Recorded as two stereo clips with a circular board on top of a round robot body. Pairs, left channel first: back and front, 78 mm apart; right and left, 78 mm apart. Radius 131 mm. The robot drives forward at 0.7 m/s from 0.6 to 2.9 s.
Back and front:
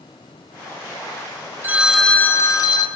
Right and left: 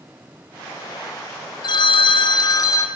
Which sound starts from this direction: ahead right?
A phone ringing, at 1.6 s.